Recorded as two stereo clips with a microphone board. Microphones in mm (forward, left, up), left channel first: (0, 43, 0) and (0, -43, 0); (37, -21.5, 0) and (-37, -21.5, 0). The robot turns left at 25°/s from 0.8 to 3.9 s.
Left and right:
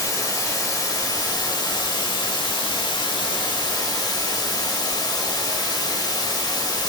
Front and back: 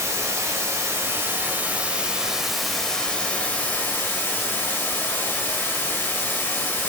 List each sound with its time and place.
0.0 s running water: 135° left, 1.2 m; by 6.9 s 55° left, 1.2 m